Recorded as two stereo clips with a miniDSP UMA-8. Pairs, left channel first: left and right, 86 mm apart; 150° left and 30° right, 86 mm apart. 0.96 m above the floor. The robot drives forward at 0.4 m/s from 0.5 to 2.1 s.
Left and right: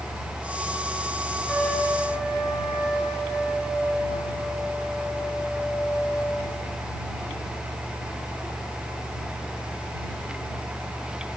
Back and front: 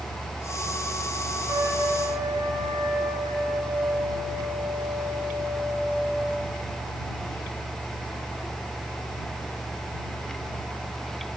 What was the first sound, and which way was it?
A trumpet, straight ahead.